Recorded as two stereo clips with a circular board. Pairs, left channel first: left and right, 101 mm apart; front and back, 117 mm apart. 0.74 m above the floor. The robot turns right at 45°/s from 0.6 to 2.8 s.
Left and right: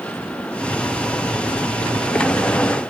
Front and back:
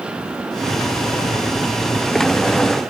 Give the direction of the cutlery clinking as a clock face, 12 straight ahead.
I don't hear cutlery clinking.